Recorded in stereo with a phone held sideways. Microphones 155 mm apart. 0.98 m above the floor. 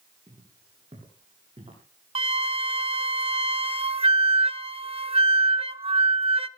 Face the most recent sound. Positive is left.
turn(degrees=-40)  # may be behind; listen again after turning